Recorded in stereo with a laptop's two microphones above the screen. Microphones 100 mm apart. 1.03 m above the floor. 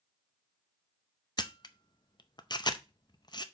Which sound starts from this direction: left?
A camera shutter, at 1.4 s.